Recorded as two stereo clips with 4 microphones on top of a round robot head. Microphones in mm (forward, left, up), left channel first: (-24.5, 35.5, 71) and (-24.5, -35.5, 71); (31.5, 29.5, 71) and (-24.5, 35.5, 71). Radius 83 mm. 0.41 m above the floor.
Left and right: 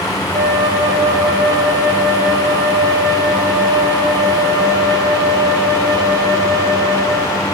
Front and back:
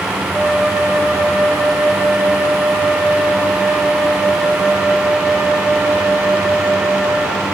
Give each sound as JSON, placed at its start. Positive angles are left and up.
{"t": 0.3, "sound": "a flute", "azimuth_deg": -95, "distance_m": 0.9}